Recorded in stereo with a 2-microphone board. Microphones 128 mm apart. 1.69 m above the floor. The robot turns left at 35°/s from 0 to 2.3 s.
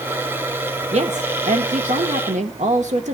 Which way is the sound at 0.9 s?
60° right.